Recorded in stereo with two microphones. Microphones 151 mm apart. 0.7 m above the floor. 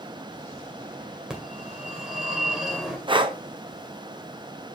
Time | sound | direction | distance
1.3 | a phone ringing | 5° right (ahead or behind) | 2 m
3.1 | breathing | 35° right (ahead or behind) | 0.7 m